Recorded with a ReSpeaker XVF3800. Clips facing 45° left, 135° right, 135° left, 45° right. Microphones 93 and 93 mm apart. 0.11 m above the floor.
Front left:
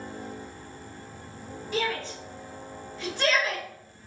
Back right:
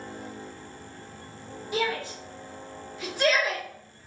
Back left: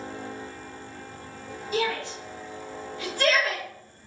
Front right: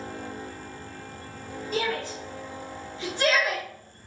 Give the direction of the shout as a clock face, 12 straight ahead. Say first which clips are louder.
Back right 1 dB, back left 1 dB; 2 o'clock.